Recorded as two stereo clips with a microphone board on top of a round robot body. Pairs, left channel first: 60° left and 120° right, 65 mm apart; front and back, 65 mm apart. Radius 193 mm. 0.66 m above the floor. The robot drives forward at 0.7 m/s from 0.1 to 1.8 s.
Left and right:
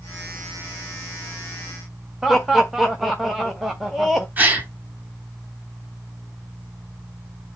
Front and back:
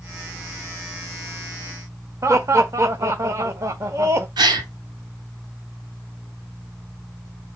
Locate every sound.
2.2 s laughter: 155° left, 1.5 m
4.4 s a gasp: 175° left, 1.8 m